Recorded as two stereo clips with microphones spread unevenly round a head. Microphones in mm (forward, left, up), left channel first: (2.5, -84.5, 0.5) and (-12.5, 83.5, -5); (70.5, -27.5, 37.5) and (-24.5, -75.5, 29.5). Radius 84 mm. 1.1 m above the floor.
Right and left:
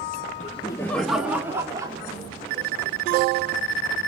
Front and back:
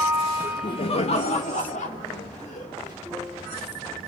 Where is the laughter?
35° right, 1.1 m; by 3.0 s 35° left, 4 m.